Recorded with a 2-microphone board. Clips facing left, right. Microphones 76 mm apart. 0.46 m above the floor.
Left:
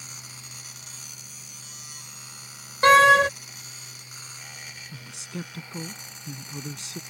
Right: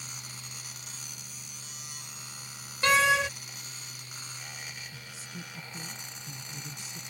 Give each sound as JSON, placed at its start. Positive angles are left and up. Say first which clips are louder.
{"t": 2.8, "sound": "a door slam", "louder": "left 9 dB", "side_deg": 50}
{"t": 4.9, "sound": "a man speaking", "louder": "left 7 dB", "side_deg": 80}